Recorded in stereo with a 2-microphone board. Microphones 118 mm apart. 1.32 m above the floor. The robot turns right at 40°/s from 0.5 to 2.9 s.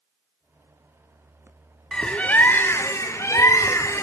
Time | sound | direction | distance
1.9 | a bird | 10° left | 0.5 m